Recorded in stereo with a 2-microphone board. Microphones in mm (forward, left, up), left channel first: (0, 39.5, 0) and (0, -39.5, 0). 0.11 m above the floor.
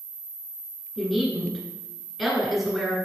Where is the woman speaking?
Centre (ahead or behind), 1.6 m.